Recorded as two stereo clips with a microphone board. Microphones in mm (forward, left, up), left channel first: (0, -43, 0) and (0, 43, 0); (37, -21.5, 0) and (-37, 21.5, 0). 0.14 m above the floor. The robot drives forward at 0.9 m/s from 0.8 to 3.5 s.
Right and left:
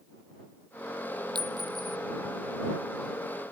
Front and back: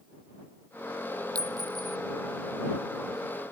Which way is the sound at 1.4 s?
110° left.